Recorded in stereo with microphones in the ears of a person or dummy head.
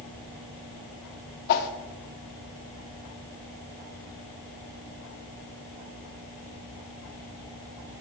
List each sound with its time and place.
1.5 s a whoosh: 60° left (ahead or behind), 1.2 m